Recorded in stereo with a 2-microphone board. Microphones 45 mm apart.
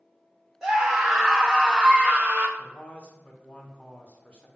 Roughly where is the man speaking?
Left.